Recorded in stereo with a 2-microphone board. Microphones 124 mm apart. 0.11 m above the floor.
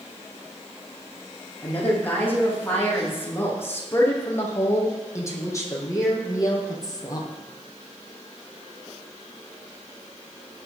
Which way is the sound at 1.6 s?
15° left (ahead or behind).